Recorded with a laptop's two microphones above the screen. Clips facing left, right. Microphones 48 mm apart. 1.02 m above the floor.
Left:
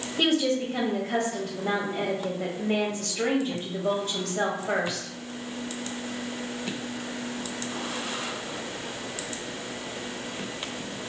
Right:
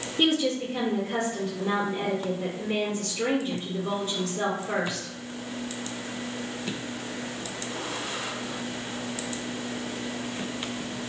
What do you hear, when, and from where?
0.2 s a woman speaking: 75° left (ahead or behind), 1.4 m